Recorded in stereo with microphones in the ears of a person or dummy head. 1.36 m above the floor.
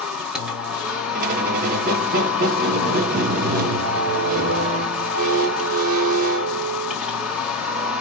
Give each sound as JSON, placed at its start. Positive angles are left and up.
{"t": 0.0, "sound": "a machine running", "side_deg": -5, "distance_m": 1.0}
{"t": 1.1, "sound": "a squeak", "side_deg": -45, "distance_m": 0.7}